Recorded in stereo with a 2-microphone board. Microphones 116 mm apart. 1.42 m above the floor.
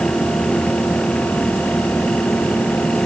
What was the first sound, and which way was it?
Only background noise.